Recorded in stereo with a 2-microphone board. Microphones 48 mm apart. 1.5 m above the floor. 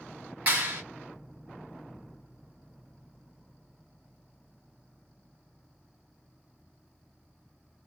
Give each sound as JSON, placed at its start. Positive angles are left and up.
{"t": 0.5, "sound": "a clap", "side_deg": -40, "distance_m": 2.5}